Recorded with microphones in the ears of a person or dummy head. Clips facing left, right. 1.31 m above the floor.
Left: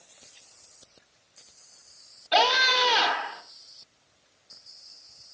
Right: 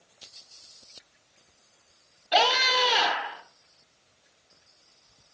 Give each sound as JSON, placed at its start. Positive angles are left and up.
{"t": 2.3, "sound": "a scream", "side_deg": 10, "distance_m": 3.5}